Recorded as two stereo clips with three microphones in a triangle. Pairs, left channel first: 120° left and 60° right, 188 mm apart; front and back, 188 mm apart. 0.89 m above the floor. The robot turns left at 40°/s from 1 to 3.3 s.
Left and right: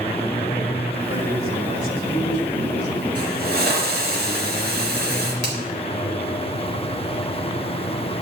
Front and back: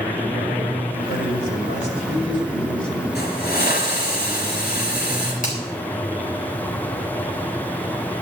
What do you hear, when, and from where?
1.1 s a man speaking: 10° left, 2.5 m; by 3.0 s 70° right, 2.5 m
3.1 s a hiss: 20° right, 4 m; by 5.3 s 30° right, 4 m
5.4 s a finger snap: 40° right, 3.5 m